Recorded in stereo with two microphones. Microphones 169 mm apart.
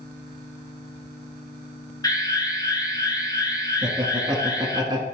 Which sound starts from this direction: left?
An alarm, at 2.0 s.